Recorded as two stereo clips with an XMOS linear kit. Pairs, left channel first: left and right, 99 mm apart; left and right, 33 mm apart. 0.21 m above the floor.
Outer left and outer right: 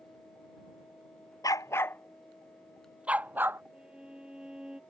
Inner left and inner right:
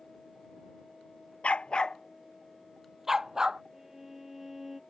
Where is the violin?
10° right (ahead or behind).